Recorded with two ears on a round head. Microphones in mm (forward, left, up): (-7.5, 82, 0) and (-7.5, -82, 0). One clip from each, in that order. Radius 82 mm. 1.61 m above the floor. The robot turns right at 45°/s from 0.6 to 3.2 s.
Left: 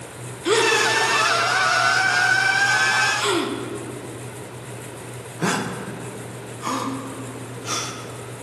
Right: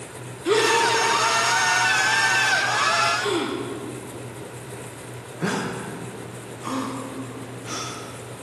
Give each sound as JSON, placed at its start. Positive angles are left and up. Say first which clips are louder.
{"t": 0.5, "sound": "a gasp", "louder": "left 1 dB", "side_deg": 25, "distance_m": 1.1}